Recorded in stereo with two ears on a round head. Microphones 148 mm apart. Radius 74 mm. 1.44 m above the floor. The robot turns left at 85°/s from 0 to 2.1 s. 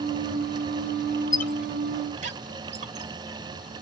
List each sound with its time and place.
1.3 s a squeak: 20° left (ahead or behind), 1.7 m; by 3.1 s 45° right (ahead or behind), 1.7 m